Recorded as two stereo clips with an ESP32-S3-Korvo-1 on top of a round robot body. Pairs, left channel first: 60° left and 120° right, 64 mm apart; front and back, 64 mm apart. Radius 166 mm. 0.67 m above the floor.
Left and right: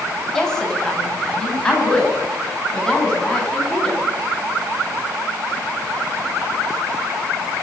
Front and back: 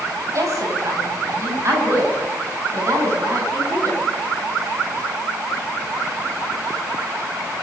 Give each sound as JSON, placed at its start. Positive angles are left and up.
{"t": 0.3, "sound": "a woman speaking", "azimuth_deg": 140, "distance_m": 6.5}